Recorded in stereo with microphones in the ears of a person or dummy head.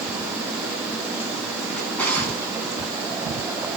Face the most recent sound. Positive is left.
turn(degrees=5)  # may be behind; listen again after turning